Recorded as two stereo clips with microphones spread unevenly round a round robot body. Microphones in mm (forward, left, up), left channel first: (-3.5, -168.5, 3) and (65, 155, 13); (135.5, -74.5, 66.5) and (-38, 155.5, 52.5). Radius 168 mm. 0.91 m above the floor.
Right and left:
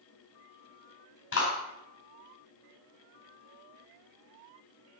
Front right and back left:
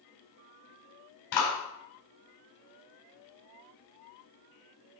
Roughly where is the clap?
Ahead right.